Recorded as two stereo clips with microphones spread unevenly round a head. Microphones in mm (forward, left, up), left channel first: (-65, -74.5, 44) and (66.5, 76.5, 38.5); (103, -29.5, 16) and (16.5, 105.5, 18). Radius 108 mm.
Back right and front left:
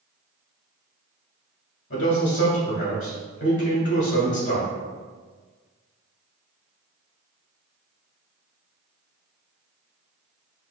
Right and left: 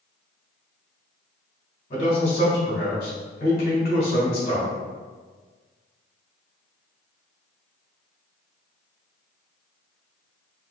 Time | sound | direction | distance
1.9 | a man speaking | 100° right | 1.8 m